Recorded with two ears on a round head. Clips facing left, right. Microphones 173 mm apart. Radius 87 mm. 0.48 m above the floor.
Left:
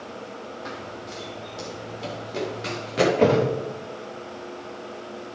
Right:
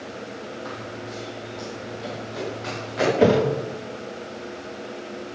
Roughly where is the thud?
Centre.